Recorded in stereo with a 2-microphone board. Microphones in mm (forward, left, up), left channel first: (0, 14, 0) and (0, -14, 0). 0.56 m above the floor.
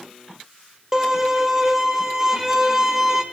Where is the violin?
20° right (ahead or behind), 1.3 m.